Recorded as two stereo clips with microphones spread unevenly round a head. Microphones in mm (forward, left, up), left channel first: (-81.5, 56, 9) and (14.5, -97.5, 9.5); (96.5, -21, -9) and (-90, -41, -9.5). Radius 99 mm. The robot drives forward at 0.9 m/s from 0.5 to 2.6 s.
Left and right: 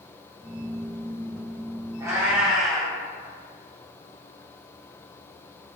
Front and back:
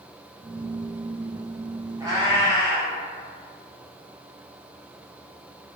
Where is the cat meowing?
115° right, 1.1 m; by 3.0 s 145° right, 1.3 m.